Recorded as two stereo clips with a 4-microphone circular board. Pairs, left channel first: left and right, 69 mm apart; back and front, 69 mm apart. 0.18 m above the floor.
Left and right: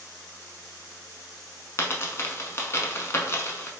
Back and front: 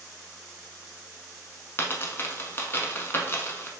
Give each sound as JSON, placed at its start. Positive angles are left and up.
{"t": 1.8, "sound": "a dropped coin", "azimuth_deg": 135, "distance_m": 0.6}